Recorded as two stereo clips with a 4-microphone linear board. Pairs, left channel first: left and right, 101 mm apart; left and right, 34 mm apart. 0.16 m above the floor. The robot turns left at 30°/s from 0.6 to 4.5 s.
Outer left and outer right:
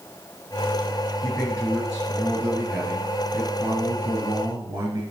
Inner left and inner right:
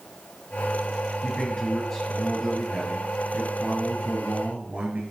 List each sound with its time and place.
1.2 s a man speaking: 20° left, 2 m; by 5.0 s 80° right, 2 m